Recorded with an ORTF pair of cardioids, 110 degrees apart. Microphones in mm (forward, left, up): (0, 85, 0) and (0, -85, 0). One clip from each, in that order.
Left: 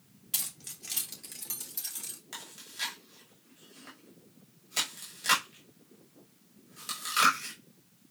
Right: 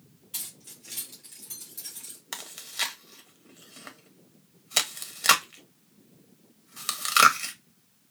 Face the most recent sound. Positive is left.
turn(degrees=-60)